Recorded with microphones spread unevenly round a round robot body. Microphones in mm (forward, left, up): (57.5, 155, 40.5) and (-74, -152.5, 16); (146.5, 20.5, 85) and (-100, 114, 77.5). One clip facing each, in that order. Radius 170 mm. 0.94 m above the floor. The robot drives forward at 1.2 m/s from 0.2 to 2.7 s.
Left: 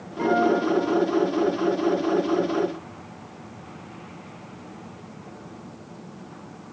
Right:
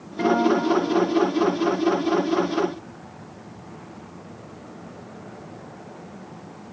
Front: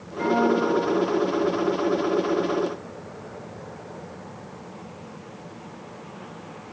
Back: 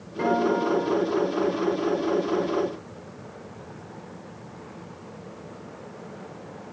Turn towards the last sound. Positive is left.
turn(degrees=-170)